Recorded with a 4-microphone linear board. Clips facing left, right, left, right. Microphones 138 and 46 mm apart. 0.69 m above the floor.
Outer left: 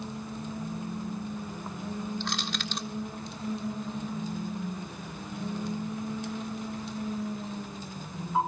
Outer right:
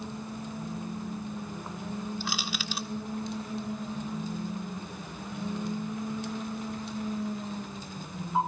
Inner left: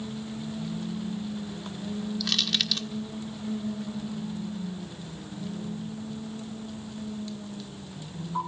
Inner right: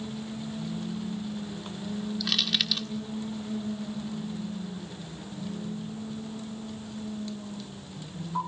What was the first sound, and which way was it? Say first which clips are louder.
Crushing: outer left 1 dB, even; 5° right (ahead or behind).